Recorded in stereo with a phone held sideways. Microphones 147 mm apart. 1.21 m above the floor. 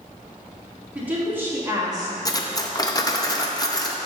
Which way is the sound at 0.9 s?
10° right (ahead or behind).